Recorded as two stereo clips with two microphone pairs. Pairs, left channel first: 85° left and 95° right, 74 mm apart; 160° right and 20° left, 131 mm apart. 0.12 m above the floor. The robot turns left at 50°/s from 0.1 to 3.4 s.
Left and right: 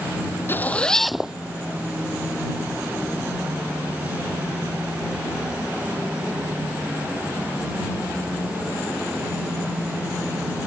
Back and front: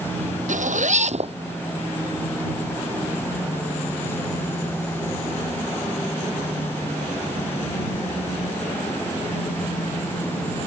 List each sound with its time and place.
0.5 s a zipper: 25° left; by 1.3 s 15° right